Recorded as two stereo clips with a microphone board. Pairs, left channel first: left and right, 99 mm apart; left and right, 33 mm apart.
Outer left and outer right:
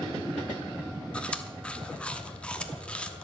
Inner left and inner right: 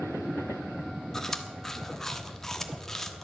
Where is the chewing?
10° left (ahead or behind), 1.1 m.